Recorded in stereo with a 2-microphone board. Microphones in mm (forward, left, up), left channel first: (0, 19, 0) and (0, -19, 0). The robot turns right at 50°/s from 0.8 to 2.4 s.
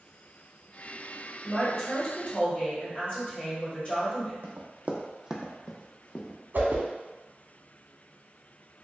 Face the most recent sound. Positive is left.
turn(degrees=-65)  # may be behind; listen again after turning